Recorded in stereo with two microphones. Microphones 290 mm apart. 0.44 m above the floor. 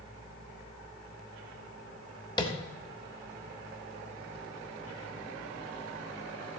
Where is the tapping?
15° left (ahead or behind), 1.2 m.